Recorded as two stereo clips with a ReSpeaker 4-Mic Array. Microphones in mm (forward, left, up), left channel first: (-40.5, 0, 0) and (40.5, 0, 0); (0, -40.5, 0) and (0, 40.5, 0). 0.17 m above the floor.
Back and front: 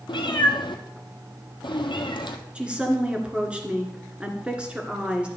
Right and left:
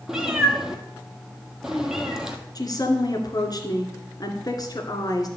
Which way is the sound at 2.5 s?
75° right.